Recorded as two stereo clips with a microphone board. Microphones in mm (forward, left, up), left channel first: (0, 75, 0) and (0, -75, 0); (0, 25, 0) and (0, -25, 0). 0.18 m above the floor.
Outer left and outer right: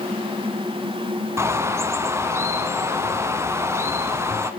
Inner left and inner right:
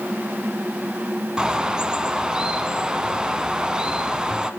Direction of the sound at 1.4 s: 15° right (ahead or behind).